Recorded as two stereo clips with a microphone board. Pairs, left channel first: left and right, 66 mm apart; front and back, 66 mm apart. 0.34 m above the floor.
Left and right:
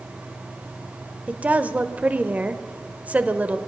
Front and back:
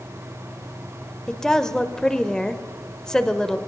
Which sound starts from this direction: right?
A woman speaking, at 1.3 s.